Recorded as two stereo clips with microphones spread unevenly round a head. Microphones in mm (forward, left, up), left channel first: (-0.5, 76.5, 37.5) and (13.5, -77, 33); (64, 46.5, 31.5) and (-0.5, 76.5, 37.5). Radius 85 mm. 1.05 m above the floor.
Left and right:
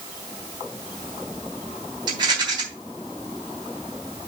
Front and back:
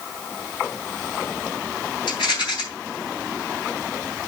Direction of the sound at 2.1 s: 20° right.